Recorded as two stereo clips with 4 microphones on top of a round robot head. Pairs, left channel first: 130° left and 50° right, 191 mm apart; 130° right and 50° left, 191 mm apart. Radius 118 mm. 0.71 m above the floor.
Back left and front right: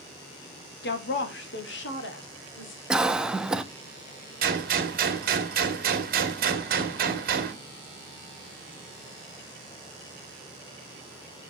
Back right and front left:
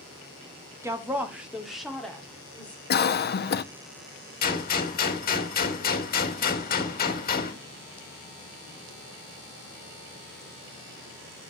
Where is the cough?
135° right, 0.9 m.